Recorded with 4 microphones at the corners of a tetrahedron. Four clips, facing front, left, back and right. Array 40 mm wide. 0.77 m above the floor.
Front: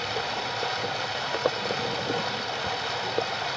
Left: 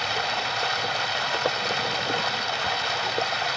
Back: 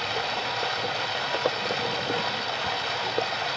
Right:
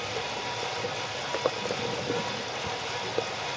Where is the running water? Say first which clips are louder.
Left 7 dB, back 1 dB; 90° left, 2 m.